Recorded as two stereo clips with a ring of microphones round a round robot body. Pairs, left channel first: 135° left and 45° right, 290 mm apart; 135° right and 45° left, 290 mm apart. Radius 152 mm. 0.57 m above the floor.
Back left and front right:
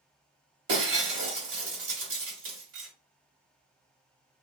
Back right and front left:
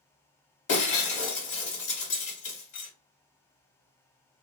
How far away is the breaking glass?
About 1.5 m.